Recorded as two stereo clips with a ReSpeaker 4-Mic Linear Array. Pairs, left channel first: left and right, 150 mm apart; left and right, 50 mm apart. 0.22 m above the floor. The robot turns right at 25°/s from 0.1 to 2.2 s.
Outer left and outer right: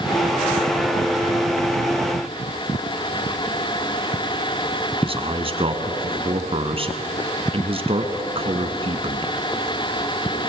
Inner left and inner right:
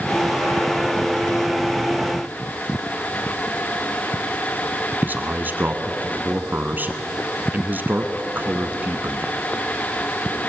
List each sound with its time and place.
5.0 s a man speaking: 40° right (ahead or behind), 1.9 m